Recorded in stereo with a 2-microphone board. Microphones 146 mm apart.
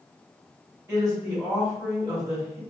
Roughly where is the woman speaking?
Right.